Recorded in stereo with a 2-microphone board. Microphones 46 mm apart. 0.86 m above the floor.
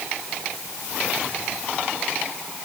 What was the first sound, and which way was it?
Only background noise.